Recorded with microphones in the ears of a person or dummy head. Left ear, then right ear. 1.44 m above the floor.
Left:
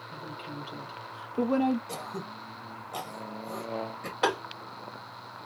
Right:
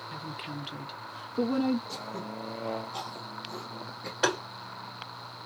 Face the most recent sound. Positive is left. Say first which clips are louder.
# even
turn(degrees=10)  # may be behind; listen again after turning